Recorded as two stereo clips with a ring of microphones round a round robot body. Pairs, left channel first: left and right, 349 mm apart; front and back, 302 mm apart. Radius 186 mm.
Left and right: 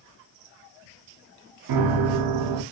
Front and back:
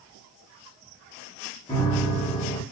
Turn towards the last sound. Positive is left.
turn(degrees=-80)